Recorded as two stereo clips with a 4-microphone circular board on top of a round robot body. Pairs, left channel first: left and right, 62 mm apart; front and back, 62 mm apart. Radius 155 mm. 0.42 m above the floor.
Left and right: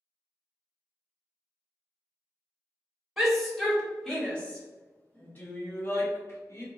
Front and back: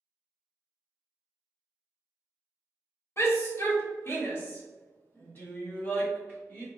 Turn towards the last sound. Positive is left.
turn(degrees=60)